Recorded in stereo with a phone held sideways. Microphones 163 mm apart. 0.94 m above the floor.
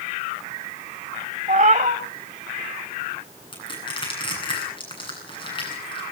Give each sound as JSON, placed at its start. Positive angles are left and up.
{"t": 1.5, "sound": "a cat meowing", "side_deg": -50, "distance_m": 1.0}
{"t": 3.5, "sound": "crushing", "side_deg": 30, "distance_m": 10.0}